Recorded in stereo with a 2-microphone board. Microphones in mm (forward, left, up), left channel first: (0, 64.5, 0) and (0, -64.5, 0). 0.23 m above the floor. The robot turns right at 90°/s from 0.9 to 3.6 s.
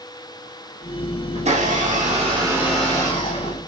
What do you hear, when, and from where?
1.4 s a blender: 125° right, 8.5 m; by 3.6 s 75° left, 8.5 m